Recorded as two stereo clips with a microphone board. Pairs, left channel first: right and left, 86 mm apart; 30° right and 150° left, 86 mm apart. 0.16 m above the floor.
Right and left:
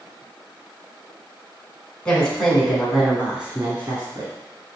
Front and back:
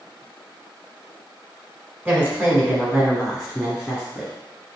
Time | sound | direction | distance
2.0 | a woman speaking | 155° right | 1.5 m